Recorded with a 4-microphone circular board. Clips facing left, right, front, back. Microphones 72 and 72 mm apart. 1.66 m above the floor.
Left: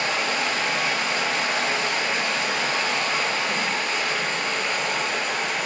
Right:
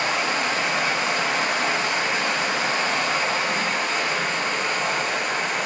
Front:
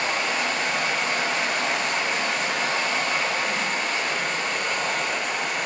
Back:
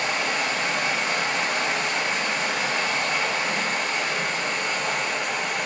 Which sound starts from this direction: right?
Running water, at 0.0 s.